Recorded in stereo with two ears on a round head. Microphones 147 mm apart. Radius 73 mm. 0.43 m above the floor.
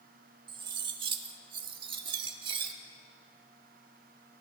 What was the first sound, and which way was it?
Cutlery clinking, 30° right (ahead or behind).